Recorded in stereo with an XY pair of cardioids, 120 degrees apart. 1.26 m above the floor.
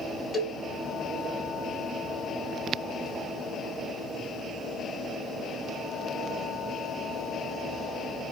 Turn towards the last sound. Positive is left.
turn(degrees=10)